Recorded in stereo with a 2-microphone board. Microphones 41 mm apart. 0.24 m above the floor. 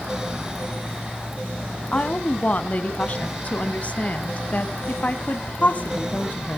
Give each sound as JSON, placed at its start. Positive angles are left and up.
{"t": 1.9, "sound": "a woman speaking", "side_deg": 35, "distance_m": 1.7}